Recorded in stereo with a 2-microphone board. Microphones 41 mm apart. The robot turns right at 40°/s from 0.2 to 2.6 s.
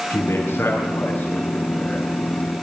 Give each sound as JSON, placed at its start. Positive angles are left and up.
{"t": 0.1, "sound": "a man speaking", "azimuth_deg": 80, "distance_m": 6.5}